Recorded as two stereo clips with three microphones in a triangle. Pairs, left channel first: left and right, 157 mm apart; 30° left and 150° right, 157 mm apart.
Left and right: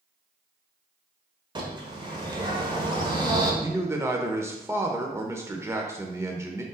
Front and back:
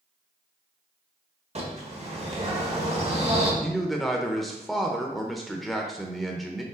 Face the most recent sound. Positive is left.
turn(degrees=-60)